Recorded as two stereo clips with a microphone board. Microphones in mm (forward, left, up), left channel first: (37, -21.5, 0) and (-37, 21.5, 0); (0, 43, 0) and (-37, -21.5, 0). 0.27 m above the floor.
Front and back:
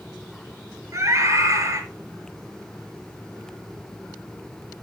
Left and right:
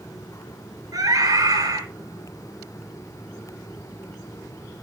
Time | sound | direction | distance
0.9 | a scream | 155° right | 4.5 m